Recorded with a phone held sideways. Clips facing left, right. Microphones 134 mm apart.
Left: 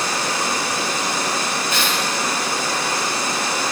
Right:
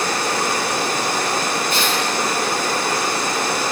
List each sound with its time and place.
0.0 s running water: 55° right (ahead or behind), 1.8 m
1.7 s tearing paper: 55° right (ahead or behind), 7.5 m